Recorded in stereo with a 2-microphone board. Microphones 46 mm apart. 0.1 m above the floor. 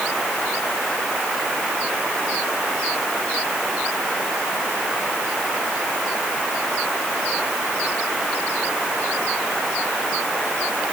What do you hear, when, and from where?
Only background noise.